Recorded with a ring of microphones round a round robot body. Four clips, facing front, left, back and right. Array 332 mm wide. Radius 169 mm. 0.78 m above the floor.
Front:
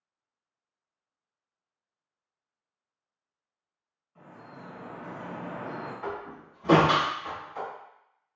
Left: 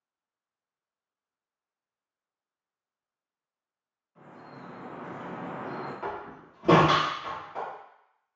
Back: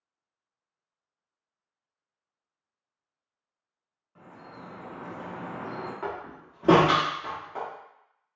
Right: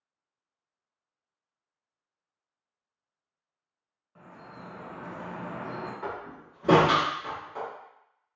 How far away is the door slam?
About 1.2 m.